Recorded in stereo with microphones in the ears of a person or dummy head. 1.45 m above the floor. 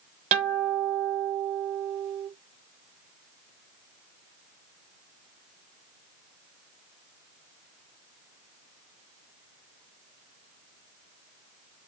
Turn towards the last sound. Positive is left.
turn(degrees=-40)  # may be behind; listen again after turning